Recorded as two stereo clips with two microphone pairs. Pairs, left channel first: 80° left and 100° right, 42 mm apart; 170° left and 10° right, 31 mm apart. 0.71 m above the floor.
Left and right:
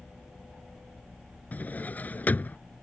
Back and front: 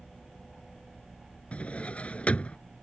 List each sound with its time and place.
1.5 s a drawer: 125° left